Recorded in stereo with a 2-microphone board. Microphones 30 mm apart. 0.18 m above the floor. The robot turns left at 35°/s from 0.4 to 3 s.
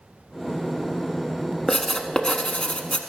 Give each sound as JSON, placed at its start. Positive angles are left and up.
{"t": 1.7, "sound": "writing", "azimuth_deg": 165, "distance_m": 0.7}